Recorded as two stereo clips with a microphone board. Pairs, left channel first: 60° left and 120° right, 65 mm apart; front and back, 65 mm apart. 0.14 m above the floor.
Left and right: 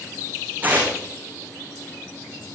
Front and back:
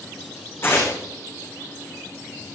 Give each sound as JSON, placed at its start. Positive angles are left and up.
{"t": 0.6, "sound": "tearing paper", "azimuth_deg": -55, "distance_m": 6.5}